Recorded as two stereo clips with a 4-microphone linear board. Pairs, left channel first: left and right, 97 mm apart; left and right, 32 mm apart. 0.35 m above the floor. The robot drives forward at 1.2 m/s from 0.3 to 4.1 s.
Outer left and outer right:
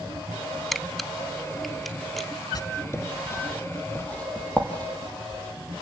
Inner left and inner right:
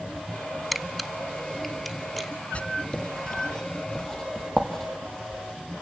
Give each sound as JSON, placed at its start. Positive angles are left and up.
{"t": 0.7, "sound": "a camera shutter", "side_deg": 0, "distance_m": 0.7}
{"t": 2.5, "sound": "writing", "side_deg": 40, "distance_m": 0.9}